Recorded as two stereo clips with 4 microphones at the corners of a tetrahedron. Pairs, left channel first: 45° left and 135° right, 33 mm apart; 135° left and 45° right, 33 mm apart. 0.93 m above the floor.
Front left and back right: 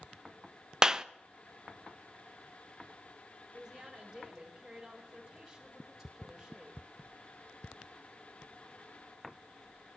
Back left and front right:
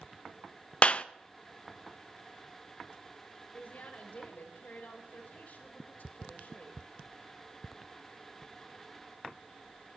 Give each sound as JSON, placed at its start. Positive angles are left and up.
{"t": 0.8, "sound": "a clap", "azimuth_deg": 160, "distance_m": 0.6}
{"t": 3.5, "sound": "a woman speaking", "azimuth_deg": 150, "distance_m": 4.0}